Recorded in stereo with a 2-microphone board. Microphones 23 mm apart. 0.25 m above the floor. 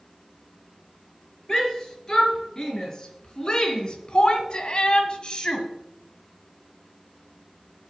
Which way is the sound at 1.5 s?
25° left (ahead or behind).